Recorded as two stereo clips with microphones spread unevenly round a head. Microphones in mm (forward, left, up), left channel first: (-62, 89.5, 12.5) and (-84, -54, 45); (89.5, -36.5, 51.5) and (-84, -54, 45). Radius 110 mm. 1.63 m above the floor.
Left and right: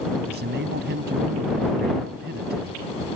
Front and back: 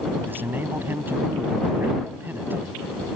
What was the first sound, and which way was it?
A man speaking, 95° right.